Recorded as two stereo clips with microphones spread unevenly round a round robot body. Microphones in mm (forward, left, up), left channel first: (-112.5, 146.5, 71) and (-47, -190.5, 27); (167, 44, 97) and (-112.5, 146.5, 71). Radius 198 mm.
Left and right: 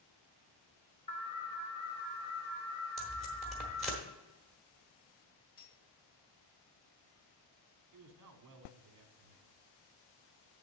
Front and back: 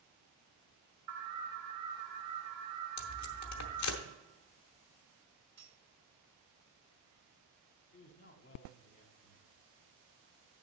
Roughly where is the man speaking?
Right.